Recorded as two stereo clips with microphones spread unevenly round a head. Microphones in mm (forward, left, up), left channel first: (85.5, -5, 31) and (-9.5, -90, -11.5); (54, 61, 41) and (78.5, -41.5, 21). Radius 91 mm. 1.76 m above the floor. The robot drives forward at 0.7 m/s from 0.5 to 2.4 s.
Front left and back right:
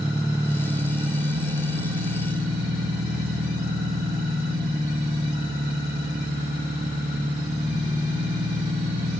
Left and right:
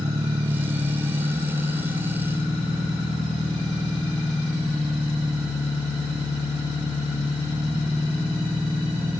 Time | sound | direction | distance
0.0 | an engine running | 60° right | 1.0 m